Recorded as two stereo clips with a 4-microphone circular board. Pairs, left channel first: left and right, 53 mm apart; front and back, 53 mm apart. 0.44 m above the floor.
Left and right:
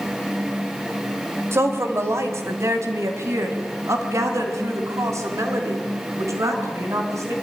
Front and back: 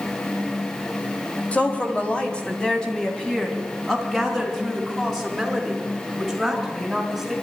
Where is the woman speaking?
65° right, 2.5 m; by 7.3 s 90° right, 5 m.